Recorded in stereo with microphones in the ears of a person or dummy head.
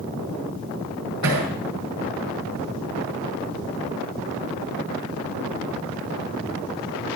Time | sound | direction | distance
1.2 | hammering | 85° right | 9.5 m